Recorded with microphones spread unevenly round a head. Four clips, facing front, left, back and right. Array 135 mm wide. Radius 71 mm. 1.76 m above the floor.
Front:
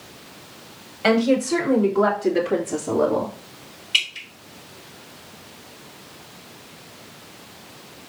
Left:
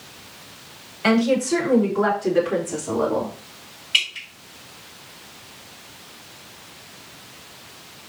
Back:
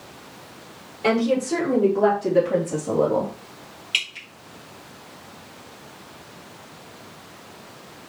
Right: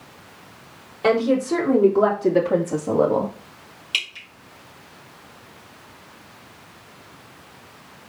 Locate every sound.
1.0 s a woman speaking: 105° right, 4 m
3.9 s dripping: 120° right, 3 m